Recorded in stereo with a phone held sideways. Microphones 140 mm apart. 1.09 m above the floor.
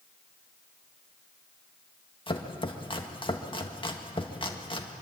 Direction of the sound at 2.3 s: 35° left (ahead or behind).